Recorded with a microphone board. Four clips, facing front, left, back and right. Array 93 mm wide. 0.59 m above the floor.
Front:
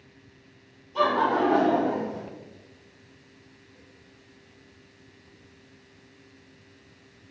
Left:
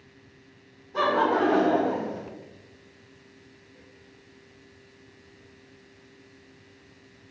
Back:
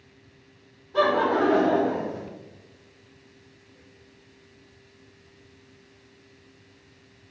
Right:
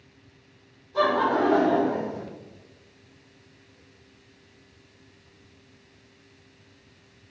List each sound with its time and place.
0.9 s laughter: 160° left, 1.9 m